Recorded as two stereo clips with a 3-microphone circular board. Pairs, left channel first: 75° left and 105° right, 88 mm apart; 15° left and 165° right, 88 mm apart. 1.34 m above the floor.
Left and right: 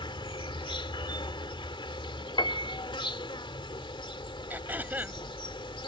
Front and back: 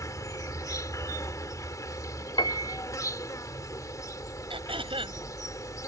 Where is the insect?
65° left.